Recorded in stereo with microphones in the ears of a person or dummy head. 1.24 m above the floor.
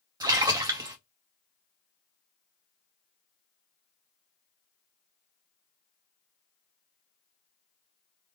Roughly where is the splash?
Centre.